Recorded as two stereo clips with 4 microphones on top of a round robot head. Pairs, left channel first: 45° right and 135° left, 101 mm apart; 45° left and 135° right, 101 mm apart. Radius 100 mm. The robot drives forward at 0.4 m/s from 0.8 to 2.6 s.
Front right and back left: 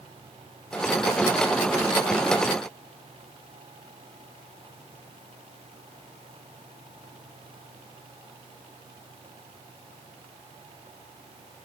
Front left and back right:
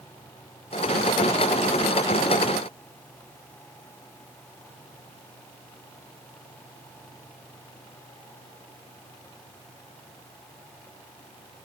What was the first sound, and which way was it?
Only background noise.